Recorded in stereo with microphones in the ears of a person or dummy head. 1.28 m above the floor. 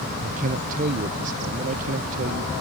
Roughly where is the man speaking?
Right.